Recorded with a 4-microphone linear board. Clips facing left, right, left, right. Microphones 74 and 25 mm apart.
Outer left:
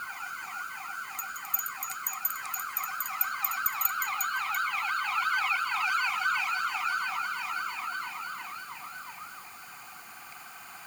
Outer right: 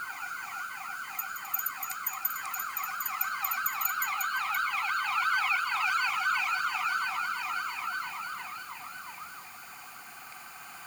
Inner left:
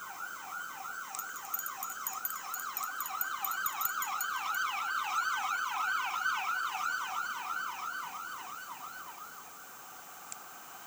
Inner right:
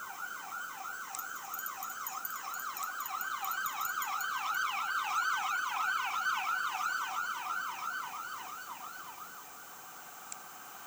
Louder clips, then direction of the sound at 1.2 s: Even, even; 75° left (ahead or behind).